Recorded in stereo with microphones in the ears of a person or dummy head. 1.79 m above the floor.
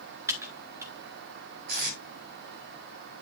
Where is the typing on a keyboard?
15° right (ahead or behind), 1.3 m.